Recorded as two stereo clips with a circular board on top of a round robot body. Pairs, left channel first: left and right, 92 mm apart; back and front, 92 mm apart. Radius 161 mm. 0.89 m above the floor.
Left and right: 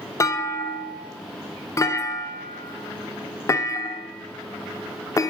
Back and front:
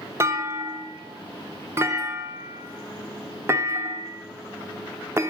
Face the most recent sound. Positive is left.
turn(degrees=50)